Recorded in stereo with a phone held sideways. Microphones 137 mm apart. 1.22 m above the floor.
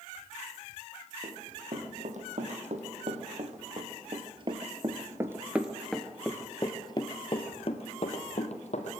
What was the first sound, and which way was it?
Running footsteps, 65° right (ahead or behind).